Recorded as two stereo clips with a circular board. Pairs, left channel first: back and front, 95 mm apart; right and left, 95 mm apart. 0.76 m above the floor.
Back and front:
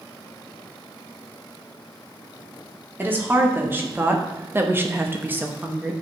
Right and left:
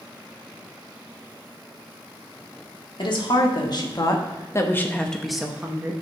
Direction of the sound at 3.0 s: 65° right.